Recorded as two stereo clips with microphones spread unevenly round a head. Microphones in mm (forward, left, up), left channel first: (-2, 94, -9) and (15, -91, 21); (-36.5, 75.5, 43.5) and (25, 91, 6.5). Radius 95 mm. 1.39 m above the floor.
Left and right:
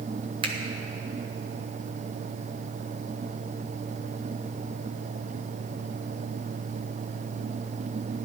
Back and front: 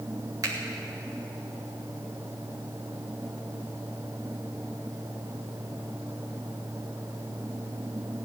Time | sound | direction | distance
0.4 | a finger snap | 20° right | 1.4 m